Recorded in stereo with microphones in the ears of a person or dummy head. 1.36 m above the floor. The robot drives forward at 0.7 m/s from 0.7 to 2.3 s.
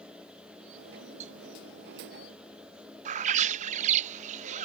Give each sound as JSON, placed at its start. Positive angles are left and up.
{"t": 1.2, "sound": "a cowbell", "side_deg": -45}
{"t": 3.0, "sound": "a bird", "side_deg": -40}